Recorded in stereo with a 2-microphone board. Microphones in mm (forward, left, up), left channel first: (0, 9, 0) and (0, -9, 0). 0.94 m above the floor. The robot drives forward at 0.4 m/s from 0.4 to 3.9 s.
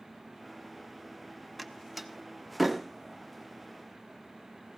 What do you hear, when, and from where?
1.6 s a door slam: centre (ahead or behind), 0.7 m